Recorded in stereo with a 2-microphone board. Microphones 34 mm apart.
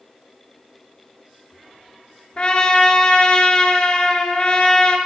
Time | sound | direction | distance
2.4 | a trumpet | 30° left (ahead or behind) | 2 m